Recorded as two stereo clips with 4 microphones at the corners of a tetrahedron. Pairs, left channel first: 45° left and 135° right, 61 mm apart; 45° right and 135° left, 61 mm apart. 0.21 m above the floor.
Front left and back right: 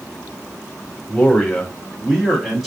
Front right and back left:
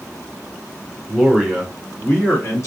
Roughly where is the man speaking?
Ahead left.